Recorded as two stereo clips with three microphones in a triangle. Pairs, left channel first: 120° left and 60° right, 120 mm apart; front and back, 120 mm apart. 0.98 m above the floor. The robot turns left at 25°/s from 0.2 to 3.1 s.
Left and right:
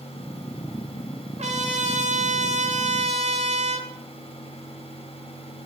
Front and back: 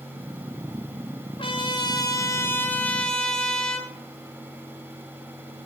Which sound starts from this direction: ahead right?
A trumpet, at 1.4 s.